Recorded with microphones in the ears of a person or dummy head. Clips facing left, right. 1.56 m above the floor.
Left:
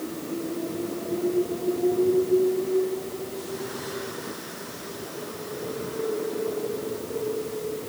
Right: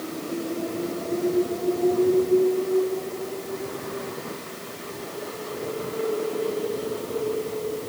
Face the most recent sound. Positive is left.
No sound to turn to.